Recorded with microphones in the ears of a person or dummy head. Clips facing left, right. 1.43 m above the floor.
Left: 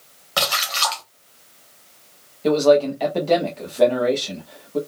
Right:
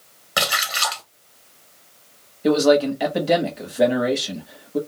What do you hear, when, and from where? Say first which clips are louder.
0.4 s a splash: left 1 dB; 20° right (ahead or behind), 0.6 m
2.4 s a man speaking: left 1 dB; 10° right (ahead or behind), 0.7 m